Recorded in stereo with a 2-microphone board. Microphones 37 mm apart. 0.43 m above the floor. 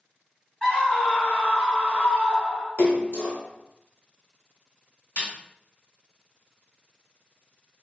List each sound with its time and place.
0.6 s a scream: 20° left (ahead or behind), 1.6 m; by 2.7 s 40° left (ahead or behind), 2 m
2.8 s a splash: 65° left (ahead or behind), 1.7 m
5.2 s a snare drum: 60° left (ahead or behind), 1.5 m